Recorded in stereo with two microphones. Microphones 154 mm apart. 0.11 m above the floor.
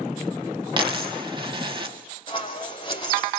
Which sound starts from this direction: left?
Scissors, at 2.3 s.